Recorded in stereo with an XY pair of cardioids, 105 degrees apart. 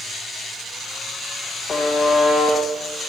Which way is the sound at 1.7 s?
35° left.